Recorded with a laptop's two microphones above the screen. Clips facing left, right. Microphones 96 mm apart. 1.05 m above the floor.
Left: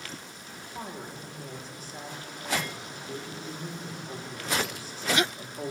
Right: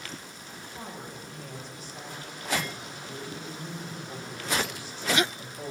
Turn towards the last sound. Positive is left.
turn(degrees=40)  # may be behind; listen again after turning